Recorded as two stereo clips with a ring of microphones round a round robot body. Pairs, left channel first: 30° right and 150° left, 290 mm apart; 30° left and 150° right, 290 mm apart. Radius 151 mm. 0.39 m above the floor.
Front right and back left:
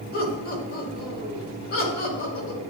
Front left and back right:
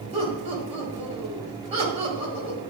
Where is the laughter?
85° right, 3 m.